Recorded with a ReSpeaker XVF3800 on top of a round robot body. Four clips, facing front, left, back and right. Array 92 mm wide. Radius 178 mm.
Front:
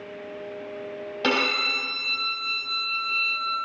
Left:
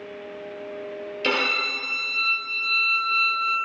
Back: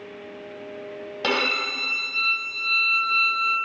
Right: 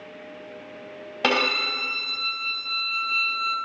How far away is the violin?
About 2.5 m.